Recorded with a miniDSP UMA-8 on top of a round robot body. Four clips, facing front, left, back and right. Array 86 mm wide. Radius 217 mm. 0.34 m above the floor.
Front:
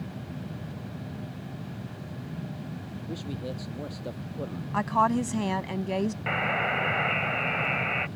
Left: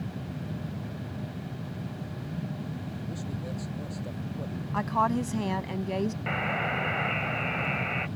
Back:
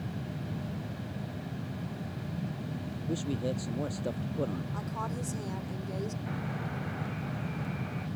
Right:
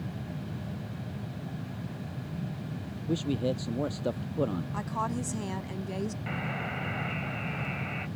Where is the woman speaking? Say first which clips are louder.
Left 11 dB, front 12 dB; 20° left.